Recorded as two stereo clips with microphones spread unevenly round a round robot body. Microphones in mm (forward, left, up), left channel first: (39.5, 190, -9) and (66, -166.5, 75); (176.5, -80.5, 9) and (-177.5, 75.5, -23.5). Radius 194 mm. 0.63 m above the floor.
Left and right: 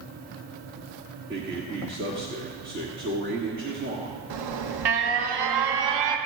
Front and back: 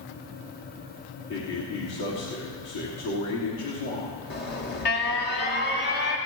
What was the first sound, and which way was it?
A man speaking, 20° right.